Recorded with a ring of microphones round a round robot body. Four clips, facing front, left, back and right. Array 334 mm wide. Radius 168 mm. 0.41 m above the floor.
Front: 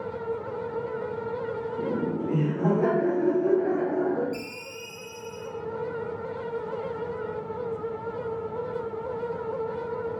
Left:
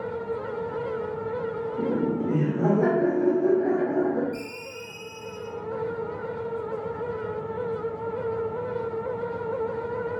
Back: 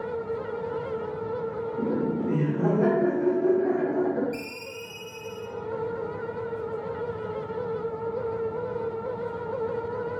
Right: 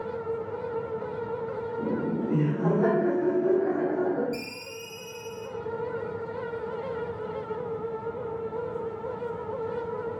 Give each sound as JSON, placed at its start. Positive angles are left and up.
{"t": 1.8, "sound": "laughter", "azimuth_deg": 115, "distance_m": 1.1}
{"t": 4.3, "sound": "a ringtone", "azimuth_deg": -105, "distance_m": 0.6}